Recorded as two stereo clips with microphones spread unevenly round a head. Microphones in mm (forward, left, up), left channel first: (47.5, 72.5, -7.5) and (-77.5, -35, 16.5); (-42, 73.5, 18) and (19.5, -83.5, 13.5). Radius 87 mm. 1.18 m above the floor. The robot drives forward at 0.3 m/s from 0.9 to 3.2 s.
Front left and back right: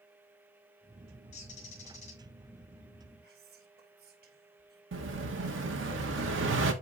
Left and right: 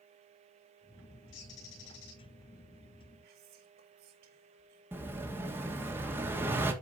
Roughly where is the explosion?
Behind right.